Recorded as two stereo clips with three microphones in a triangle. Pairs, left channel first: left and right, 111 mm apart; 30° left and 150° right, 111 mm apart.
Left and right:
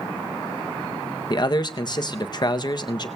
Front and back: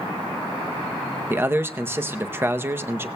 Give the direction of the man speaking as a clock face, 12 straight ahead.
7 o'clock.